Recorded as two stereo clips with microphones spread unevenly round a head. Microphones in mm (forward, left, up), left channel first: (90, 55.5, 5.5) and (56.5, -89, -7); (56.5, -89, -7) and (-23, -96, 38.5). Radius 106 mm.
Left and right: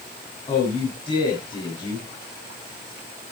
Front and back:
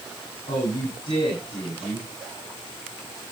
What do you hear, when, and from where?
0.5 s a man speaking: 25° left, 7.5 m